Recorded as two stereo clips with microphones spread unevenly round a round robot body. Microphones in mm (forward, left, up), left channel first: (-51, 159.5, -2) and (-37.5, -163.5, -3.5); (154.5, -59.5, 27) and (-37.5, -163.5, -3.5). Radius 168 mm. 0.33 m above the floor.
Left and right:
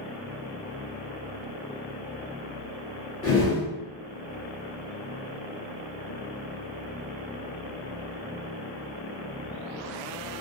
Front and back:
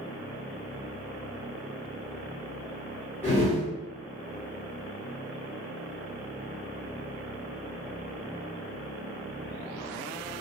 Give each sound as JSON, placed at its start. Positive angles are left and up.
{"t": 3.2, "sound": "a whoosh", "azimuth_deg": 115, "distance_m": 1.1}